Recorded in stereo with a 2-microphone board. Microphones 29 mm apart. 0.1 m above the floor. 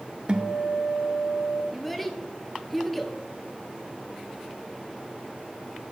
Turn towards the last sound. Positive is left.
turn(degrees=5)  # may be behind; listen again after turning